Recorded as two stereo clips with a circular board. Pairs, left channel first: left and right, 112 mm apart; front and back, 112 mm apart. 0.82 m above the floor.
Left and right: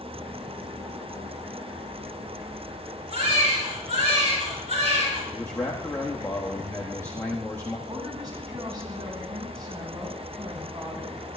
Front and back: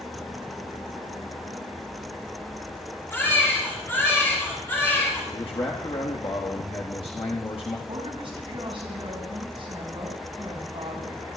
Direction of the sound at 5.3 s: 25° left.